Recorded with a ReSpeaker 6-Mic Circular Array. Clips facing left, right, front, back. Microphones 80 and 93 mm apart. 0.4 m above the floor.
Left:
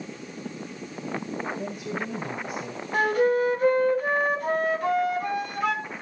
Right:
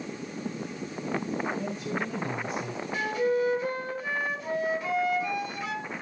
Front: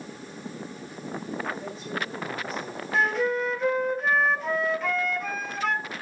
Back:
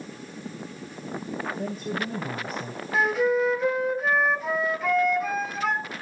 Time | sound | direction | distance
1.5 | a woman speaking | 165° left | 2.5 m
2.9 | a flute | 95° left | 1.6 m